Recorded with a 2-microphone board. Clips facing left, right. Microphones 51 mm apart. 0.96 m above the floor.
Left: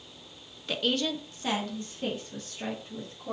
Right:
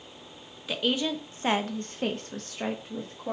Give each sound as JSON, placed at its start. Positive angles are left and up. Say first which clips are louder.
{"t": 0.7, "sound": "a woman speaking", "louder": "right 1 dB", "side_deg": -10, "distance_m": 0.9}